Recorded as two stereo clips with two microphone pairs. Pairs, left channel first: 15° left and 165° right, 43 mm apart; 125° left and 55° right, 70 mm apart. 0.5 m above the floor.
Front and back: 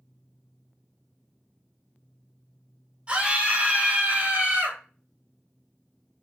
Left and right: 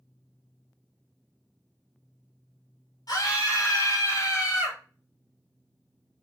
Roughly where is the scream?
Behind left.